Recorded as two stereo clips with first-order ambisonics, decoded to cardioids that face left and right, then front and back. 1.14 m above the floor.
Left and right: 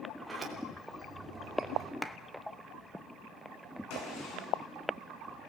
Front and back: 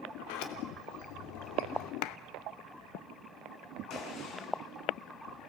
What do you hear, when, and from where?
0.2 s a sliding door: 10° right, 3 m
2.0 s a clap: 5° left, 0.9 m
3.9 s a gunshot: 55° left, 7 m